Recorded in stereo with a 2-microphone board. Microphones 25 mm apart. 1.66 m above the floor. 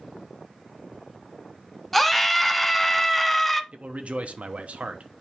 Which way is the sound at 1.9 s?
10° left (ahead or behind).